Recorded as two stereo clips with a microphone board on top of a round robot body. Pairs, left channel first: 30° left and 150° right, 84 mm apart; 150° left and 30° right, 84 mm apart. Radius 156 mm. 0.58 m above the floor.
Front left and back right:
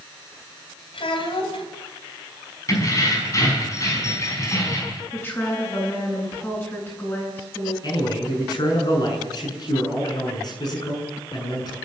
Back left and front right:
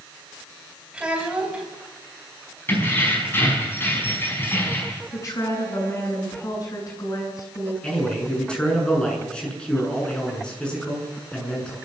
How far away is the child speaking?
About 3.5 m.